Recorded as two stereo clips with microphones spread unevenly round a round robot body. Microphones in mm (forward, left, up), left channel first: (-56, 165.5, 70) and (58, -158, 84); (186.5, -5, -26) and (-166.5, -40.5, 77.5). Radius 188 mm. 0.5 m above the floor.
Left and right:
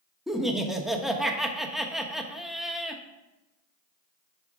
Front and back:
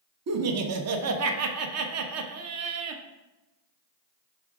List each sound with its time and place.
0.3 s laughter: 165° right, 0.8 m